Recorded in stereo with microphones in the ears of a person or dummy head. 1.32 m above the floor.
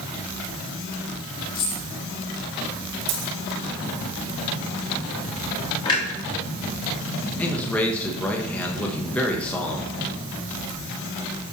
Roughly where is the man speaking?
Centre.